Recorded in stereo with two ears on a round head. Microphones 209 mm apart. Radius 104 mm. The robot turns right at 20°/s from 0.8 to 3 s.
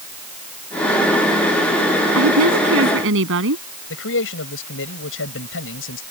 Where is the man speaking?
60° left (ahead or behind).